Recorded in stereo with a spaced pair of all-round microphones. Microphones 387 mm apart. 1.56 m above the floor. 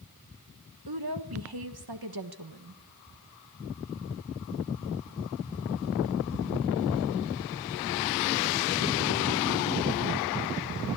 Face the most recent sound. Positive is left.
turn(degrees=-70)  # may be behind; listen again after turning